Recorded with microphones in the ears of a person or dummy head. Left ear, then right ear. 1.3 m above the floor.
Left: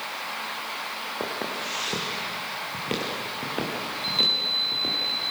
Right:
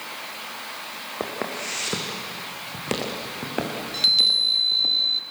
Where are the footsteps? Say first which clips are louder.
Right 3 dB; 10° right (ahead or behind), 4 m; by 4.9 s 15° right (ahead or behind), 5.5 m.